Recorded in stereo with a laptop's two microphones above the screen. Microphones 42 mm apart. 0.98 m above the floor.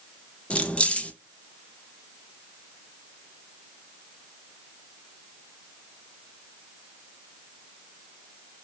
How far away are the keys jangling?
About 0.5 m.